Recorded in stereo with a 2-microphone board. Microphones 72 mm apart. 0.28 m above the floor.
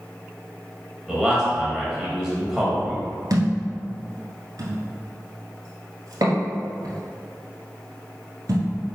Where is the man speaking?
5° right (ahead or behind), 1.3 m.